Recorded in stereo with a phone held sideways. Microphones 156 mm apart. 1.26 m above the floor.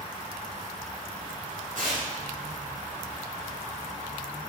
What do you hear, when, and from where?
1.8 s tearing paper: 60° right (ahead or behind), 3 m